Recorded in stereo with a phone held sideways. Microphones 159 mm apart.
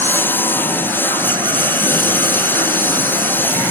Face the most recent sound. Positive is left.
turn(degrees=10)  # may be behind; listen again after turning